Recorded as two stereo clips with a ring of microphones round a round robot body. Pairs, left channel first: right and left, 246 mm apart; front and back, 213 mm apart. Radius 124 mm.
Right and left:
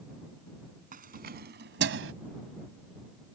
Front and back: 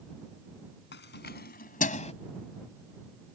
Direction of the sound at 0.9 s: 35° left.